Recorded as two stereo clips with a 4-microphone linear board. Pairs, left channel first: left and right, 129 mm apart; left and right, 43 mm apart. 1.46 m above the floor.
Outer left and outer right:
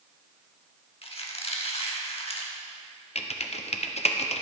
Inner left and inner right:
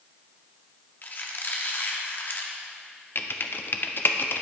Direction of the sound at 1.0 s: 50° left (ahead or behind).